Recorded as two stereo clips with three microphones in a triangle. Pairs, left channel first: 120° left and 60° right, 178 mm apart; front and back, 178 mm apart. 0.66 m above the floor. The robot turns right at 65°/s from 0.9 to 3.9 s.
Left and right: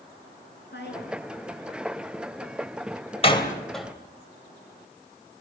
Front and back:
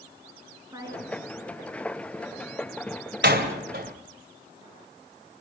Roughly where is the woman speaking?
Left.